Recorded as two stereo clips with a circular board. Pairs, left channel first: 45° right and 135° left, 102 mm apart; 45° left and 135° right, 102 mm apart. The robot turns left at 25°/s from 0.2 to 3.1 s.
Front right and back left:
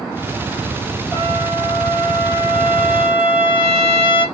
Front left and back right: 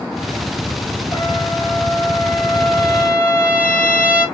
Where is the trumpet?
35° left, 4 m; by 4.2 s 15° right, 4 m.